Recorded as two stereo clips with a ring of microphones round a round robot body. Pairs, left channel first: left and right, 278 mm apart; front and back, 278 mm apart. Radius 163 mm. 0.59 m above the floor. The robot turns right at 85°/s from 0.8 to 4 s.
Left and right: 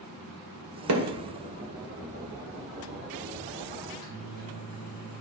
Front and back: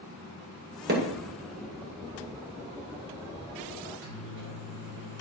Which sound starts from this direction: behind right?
Hammering, at 0.9 s.